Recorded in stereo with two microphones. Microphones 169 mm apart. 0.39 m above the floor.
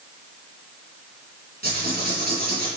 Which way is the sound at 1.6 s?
70° right (ahead or behind).